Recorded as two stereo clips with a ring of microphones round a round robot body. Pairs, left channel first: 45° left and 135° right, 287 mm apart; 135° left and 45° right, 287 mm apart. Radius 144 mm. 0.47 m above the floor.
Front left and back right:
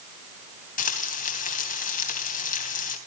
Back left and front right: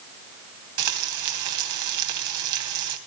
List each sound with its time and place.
0.8 s frying: 20° right, 3 m